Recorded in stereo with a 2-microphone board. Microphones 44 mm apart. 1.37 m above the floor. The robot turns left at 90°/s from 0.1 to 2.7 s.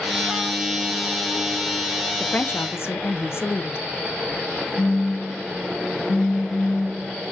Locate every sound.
2.2 s a woman speaking: 160° left, 1.0 m; by 3.8 s 115° left, 1.0 m
4.8 s a phone buzzing: 75° left (ahead or behind), 1.6 m